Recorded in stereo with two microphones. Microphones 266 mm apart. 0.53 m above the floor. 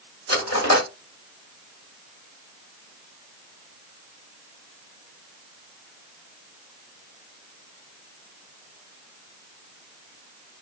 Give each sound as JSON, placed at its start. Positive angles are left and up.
{"t": 0.3, "sound": "cutlery clinking", "side_deg": 65, "distance_m": 1.5}